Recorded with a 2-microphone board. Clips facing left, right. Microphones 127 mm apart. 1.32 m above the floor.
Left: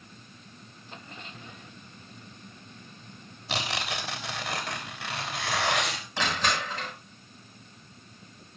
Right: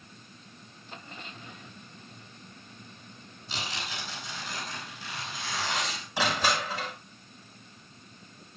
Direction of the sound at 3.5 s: 80° left.